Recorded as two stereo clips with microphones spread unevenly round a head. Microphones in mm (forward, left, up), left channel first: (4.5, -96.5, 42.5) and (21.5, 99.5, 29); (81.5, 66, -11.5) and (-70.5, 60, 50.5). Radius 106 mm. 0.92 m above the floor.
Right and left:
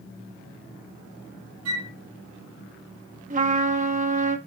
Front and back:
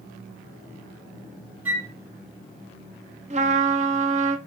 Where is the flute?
105° left, 5.5 m.